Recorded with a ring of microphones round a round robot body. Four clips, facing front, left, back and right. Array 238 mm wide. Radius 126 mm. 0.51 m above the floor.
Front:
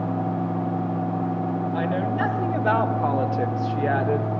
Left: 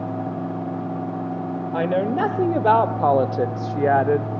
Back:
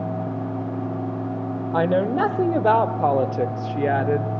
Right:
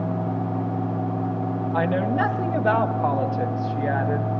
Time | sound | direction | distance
1.7 | a woman speaking | 145° left | 2 m